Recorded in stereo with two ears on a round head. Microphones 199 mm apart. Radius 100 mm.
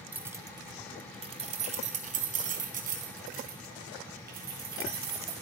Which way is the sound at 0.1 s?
10° right (ahead or behind).